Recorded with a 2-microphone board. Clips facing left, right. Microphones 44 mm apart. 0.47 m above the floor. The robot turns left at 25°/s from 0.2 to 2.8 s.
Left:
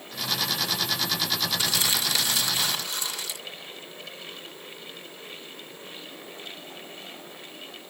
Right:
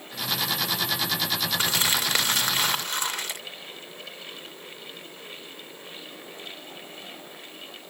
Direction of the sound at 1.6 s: 55° right.